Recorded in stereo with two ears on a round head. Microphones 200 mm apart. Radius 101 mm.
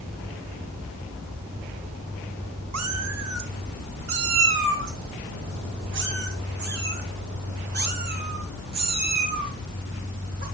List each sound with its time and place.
2.7 s a cat meowing: 80° right, 2.0 m; by 10.4 s 45° right (ahead or behind), 6.5 m